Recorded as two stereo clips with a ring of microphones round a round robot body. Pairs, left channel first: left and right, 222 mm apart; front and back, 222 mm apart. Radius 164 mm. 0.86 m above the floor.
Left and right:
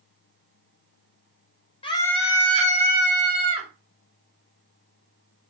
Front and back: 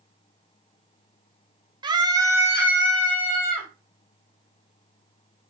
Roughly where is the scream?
Behind left.